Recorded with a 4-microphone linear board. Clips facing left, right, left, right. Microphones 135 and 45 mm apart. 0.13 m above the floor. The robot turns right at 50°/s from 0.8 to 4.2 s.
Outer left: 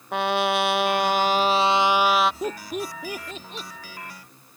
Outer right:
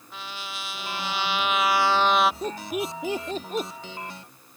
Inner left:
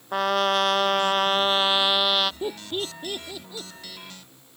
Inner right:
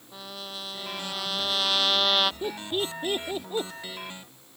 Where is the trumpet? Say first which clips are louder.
Outer left 17 dB, inner left 18 dB; 110° left; by 2.3 s 175° right.